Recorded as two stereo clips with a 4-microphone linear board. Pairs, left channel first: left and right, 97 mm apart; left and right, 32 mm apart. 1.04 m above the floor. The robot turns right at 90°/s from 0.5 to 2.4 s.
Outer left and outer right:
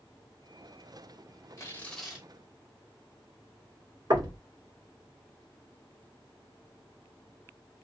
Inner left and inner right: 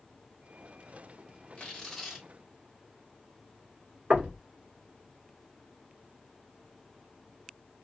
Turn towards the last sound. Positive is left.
turn(degrees=-50)  # may be behind; listen again after turning